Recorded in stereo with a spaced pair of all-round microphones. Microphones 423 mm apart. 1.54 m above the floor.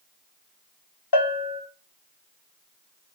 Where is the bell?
65° left (ahead or behind), 1.4 m.